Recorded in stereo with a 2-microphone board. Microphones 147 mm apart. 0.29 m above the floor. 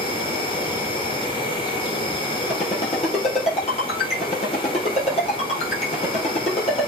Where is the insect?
35° left (ahead or behind), 3 m.